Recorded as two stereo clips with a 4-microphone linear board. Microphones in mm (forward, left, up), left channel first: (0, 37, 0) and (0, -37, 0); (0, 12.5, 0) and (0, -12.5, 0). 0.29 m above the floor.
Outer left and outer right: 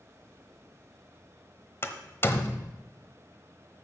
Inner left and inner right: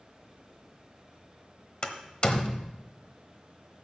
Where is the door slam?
35° left (ahead or behind), 1.1 m.